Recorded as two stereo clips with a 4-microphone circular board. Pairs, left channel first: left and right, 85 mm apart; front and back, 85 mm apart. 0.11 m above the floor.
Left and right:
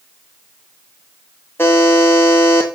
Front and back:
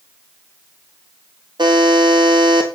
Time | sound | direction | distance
1.6 | a buzzer | 155° left | 3.5 m